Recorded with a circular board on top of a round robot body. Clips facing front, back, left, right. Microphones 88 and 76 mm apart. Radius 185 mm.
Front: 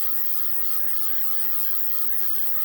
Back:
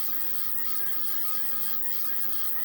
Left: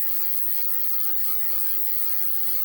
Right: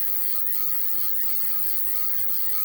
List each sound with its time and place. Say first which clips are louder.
0.0 s an insect: front 1 dB, right 1 dB; 5° right, 0.8 m